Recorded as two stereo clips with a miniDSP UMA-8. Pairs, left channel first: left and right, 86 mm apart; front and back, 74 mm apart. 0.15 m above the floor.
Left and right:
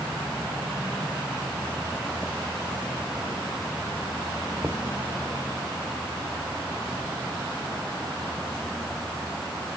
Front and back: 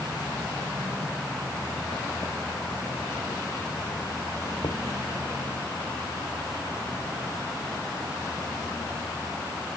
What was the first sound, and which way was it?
Knocking, 20° right.